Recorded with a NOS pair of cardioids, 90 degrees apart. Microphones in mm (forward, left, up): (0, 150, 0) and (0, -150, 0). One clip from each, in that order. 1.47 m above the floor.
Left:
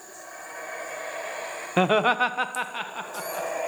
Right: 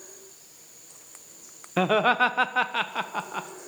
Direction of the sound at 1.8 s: 15° left.